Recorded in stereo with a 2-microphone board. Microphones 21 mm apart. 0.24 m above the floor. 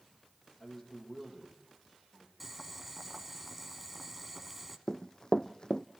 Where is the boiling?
10° right (ahead or behind), 1.4 m.